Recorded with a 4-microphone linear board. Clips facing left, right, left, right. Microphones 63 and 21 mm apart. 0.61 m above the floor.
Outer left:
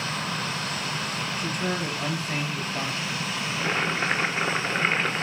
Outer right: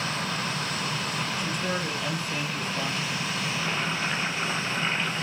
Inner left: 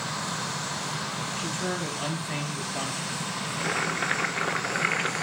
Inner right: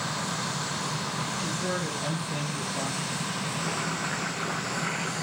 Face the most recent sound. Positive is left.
turn(degrees=50)  # may be behind; listen again after turning